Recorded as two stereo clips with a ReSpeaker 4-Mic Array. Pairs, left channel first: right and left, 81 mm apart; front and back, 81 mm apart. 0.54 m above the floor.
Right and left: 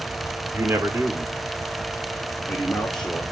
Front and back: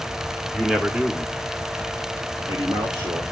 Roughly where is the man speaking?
Left.